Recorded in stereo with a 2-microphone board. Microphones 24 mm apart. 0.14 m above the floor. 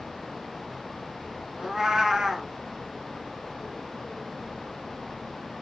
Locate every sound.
1.6 s a cat meowing: 25° right (ahead or behind), 0.5 m